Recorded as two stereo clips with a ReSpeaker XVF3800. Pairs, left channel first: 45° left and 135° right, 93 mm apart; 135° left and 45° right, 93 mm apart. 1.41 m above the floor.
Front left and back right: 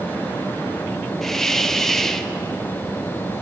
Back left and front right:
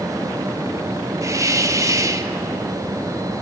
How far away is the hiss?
About 0.8 m.